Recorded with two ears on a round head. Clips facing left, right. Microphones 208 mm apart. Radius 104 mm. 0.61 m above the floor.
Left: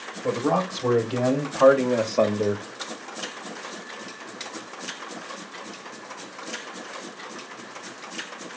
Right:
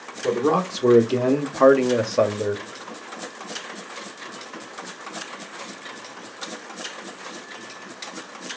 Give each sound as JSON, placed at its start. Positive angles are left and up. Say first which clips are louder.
{"t": 0.2, "sound": "a man speaking", "louder": "right 3 dB", "side_deg": -50, "distance_m": 1.6}